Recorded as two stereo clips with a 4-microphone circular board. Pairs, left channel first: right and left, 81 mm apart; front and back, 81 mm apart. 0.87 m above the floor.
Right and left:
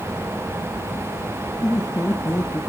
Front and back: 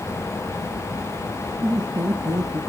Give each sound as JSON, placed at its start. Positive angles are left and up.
{"t": 1.6, "sound": "laughter", "azimuth_deg": -140, "distance_m": 1.4}